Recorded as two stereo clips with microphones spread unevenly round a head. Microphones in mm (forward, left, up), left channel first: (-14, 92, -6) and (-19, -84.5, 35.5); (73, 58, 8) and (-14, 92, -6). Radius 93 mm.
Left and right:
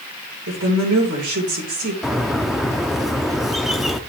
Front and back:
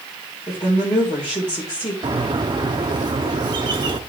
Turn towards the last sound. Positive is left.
turn(degrees=-165)